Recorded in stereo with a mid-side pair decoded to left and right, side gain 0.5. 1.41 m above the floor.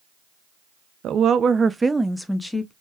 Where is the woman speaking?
65° right, 0.6 m; by 2.7 s 15° left, 0.9 m.